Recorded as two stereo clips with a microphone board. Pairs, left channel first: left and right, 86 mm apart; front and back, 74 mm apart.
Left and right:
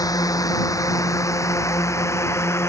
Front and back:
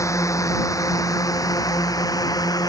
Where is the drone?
45° left; by 2.7 s 30° left.